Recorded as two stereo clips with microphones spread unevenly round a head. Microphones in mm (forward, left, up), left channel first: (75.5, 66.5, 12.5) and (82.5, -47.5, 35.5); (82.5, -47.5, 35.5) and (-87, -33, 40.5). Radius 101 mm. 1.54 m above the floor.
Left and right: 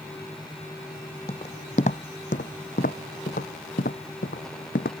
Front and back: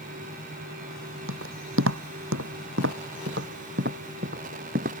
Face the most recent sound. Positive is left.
turn(degrees=125)